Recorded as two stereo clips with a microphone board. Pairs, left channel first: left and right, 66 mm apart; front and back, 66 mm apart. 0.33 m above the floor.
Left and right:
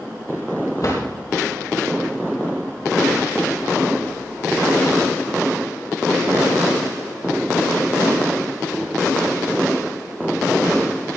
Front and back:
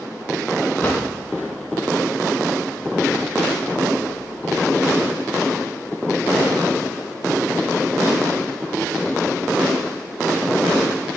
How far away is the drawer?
About 7 m.